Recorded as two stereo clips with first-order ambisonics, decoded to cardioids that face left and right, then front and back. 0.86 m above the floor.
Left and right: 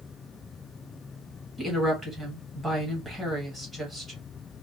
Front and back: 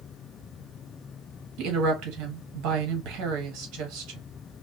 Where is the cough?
No cough in this recording.